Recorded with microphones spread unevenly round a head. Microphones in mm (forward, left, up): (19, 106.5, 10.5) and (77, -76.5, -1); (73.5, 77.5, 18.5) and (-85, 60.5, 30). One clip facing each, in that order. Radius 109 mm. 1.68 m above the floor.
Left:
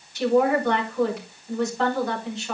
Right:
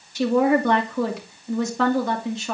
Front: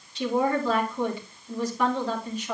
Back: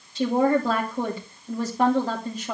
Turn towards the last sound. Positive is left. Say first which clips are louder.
# right 1 dB, back 4 dB
turn(degrees=-110)